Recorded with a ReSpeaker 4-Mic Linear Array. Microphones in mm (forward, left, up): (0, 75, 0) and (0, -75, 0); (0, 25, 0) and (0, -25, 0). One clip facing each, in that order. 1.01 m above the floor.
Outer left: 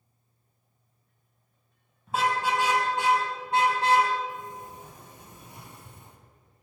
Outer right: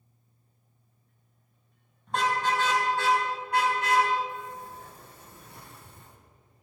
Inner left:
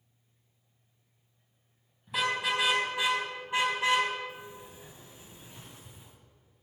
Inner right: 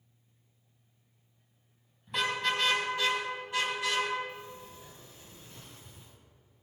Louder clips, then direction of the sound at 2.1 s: Outer left 1 dB, inner left 1 dB; 5° left (ahead or behind).